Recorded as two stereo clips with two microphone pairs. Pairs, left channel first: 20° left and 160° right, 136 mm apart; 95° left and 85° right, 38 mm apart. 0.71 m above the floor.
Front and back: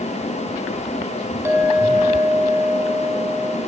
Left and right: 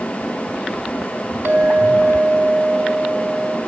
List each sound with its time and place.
1.4 s a clink: 90° right, 1.4 m